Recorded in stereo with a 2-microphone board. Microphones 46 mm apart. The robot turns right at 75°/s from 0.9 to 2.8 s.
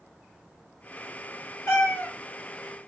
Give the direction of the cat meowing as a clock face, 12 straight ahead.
9 o'clock.